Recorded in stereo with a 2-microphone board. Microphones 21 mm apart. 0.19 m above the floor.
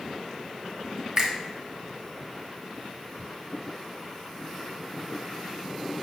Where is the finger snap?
30° right (ahead or behind), 1.0 m.